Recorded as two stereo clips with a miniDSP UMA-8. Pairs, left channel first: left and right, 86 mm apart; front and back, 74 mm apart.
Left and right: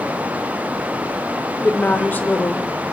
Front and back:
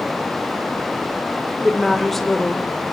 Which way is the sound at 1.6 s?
80° left.